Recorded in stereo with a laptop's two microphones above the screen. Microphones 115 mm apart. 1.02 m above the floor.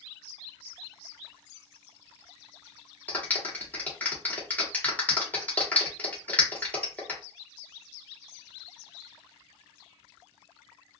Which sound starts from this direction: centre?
A clap, at 3.1 s.